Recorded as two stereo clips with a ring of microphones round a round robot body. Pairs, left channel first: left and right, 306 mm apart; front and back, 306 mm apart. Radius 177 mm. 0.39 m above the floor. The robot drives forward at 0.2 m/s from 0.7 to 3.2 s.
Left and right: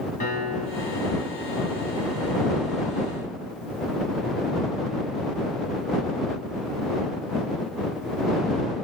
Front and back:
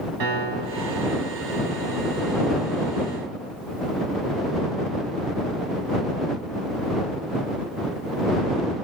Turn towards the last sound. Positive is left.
turn(degrees=160)